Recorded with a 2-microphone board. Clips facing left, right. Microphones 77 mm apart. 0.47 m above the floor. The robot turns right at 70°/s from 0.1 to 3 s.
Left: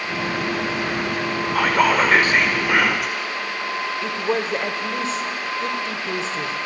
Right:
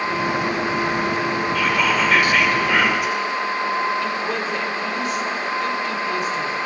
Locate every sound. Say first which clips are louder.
1.6 s whispering: left 5 dB; 80° left, 1.5 m; by 3.1 s 175° right, 1.5 m
4.0 s a woman speaking: left 1 dB; 25° left (ahead or behind), 2.0 m